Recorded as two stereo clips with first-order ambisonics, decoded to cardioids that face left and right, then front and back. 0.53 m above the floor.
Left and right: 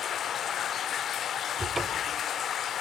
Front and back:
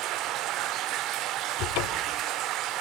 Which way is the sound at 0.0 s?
145° left.